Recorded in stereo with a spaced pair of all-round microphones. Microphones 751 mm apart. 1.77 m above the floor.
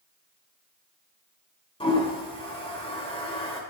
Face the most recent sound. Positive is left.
turn(degrees=5)  # may be behind; listen again after turning